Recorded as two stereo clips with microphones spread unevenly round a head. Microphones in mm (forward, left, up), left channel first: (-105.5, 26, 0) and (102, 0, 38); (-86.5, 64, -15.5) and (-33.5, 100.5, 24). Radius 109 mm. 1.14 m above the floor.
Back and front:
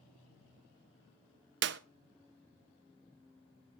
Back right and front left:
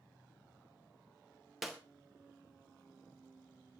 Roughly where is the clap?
Ahead right.